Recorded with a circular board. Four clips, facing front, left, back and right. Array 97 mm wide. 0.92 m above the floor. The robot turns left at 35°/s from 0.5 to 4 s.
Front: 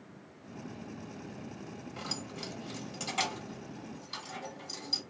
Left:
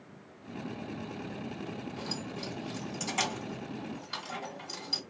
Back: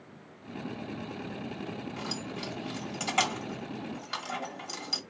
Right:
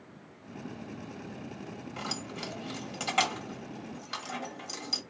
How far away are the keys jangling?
About 1.4 m.